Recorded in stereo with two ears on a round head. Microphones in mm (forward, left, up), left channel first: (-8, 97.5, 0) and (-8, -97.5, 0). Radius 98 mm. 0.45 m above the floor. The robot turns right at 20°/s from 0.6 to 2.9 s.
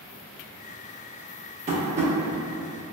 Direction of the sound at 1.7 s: 35° right (ahead or behind).